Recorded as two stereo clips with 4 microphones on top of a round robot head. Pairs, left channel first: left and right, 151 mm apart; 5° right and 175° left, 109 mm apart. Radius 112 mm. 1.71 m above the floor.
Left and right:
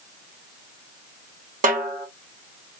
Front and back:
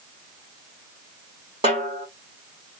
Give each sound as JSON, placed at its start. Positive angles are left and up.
{"t": 1.6, "sound": "a snare drum", "azimuth_deg": -125, "distance_m": 1.6}